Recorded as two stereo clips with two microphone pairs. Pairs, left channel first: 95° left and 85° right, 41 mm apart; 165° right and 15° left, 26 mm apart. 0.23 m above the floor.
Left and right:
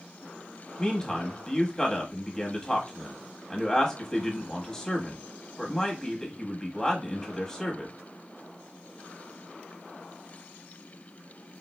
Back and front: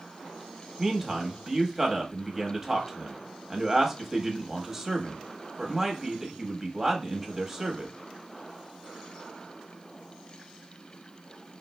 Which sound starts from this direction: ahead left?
A man speaking, at 0.8 s.